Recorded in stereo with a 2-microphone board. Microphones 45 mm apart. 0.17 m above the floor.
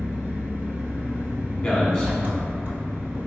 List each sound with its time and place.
0.0 s an engine running: 50° right (ahead or behind), 1.1 m
1.6 s a man speaking: 15° left (ahead or behind), 1.1 m